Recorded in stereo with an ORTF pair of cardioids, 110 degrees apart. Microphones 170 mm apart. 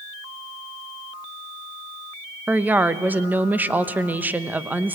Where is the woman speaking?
10° right, 0.9 m.